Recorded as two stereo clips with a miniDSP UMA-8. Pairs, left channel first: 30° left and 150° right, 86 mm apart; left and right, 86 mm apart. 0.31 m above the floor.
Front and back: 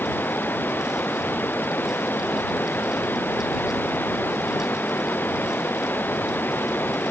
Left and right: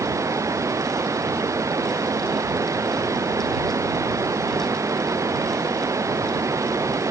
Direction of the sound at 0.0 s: 35° right.